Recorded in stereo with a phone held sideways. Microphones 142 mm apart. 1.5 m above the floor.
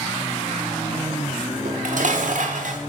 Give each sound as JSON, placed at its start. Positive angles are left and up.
{"t": 1.6, "sound": "dishes clattering", "side_deg": -65, "distance_m": 2.0}